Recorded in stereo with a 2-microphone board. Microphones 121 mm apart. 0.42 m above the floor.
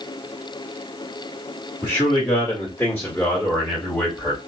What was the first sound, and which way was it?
A man speaking, 25° left (ahead or behind).